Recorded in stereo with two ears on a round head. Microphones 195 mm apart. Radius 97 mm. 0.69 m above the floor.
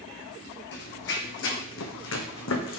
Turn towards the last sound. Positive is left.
turn(degrees=65)  # may be behind; listen again after turning